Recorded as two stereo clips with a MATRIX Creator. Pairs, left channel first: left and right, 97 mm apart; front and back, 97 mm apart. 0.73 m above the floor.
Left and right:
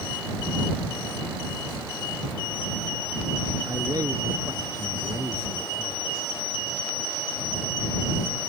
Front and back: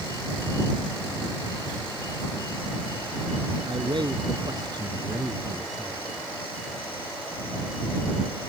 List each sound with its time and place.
3.6 s a man speaking: 140° right; by 6.2 s 130° right